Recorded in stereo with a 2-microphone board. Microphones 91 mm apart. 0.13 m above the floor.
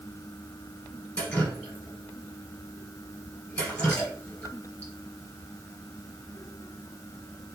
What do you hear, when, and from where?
1.2 s dripping: 15° left (ahead or behind), 1.6 m